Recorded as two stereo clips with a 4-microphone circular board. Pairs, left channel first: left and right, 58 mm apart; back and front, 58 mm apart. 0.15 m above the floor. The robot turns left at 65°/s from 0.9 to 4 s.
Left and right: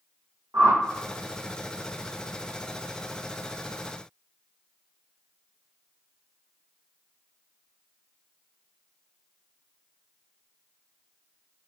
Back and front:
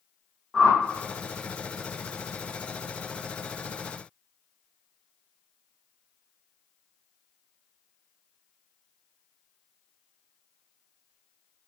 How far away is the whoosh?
About 1.0 m.